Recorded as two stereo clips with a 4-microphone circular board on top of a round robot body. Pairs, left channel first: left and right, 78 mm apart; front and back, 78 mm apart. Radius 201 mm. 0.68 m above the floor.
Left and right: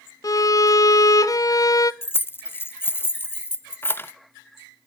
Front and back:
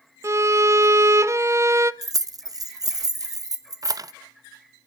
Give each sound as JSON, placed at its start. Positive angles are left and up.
{"t": 0.2, "sound": "a violin", "azimuth_deg": 130, "distance_m": 0.9}
{"t": 2.0, "sound": "keys jangling", "azimuth_deg": 150, "distance_m": 0.9}